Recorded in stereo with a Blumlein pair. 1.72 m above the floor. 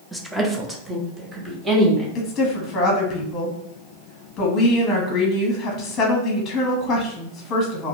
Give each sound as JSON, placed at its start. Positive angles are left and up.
{"t": 0.1, "sound": "a woman speaking", "azimuth_deg": 0, "distance_m": 0.6}
{"t": 2.1, "sound": "a woman speaking", "azimuth_deg": 25, "distance_m": 1.0}